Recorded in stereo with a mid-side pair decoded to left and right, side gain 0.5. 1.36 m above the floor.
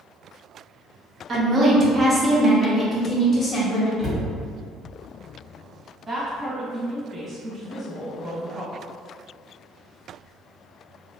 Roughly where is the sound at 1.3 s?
Ahead right.